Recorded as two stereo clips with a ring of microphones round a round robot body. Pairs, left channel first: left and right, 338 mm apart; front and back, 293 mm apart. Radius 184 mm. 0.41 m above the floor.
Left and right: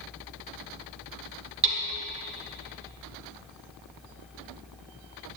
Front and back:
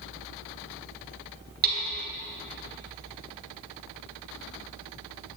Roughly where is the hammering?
Behind right.